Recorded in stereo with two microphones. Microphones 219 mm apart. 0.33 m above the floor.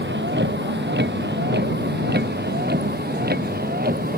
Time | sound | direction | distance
0.0 | a vehicle | 60° right (ahead or behind) | ?